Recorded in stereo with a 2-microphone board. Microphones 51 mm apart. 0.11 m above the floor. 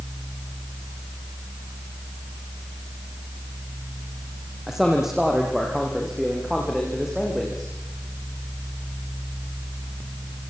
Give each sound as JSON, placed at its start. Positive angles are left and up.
{"t": 4.7, "sound": "a man speaking", "side_deg": -5, "distance_m": 4.5}